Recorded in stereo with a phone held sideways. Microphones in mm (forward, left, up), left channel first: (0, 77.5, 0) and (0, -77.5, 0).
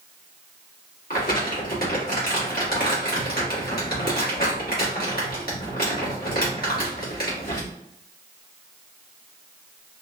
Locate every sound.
1.1 s crumpling: 75° left (ahead or behind), 1.2 m